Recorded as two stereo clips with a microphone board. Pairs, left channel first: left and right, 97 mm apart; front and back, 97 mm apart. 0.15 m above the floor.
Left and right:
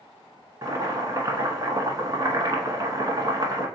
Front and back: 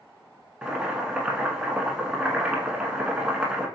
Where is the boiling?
105° right, 0.9 m.